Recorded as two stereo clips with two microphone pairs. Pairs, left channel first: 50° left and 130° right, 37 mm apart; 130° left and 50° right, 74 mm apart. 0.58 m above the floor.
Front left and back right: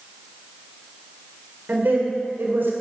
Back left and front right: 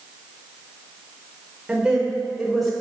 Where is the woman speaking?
120° right, 1.8 m; by 2.7 s 140° right, 2.5 m.